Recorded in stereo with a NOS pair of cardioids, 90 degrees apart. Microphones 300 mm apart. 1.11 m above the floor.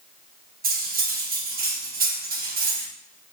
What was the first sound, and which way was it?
Cutlery clinking, 30° right.